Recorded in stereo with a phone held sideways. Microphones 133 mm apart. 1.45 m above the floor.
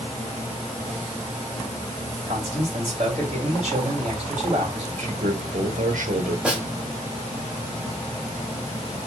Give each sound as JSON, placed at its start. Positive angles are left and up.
{"t": 2.3, "sound": "a man speaking", "side_deg": -55, "distance_m": 3.0}
{"t": 5.0, "sound": "a man speaking", "side_deg": -90, "distance_m": 1.2}
{"t": 6.5, "sound": "a snare drum", "side_deg": -10, "distance_m": 1.6}